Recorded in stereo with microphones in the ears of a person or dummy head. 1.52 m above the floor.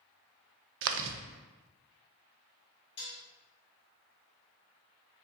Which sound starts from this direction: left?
Dishes clattering, at 3.0 s.